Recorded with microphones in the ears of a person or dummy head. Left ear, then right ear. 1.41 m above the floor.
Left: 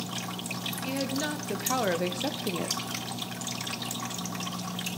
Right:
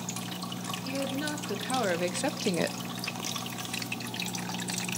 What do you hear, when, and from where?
0.8 s a woman speaking: 20° left (ahead or behind), 2.5 m; by 2.8 s 80° right, 0.7 m